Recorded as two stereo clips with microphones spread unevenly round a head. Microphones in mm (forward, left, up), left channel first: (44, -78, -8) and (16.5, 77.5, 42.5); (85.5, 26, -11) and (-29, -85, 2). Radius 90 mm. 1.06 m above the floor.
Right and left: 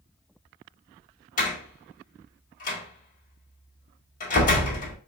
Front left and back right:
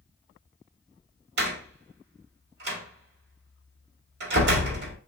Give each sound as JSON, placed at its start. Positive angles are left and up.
{"t": 1.4, "sound": "a door slam", "azimuth_deg": -125, "distance_m": 2.0}